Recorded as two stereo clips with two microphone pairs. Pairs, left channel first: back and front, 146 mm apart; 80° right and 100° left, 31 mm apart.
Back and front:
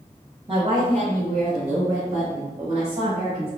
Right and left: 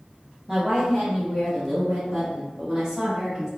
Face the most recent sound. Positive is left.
turn(degrees=40)